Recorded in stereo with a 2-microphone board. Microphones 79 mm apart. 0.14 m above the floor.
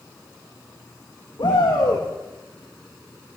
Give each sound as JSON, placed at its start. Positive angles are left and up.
{"t": 1.4, "sound": "a shout", "side_deg": 60, "distance_m": 9.5}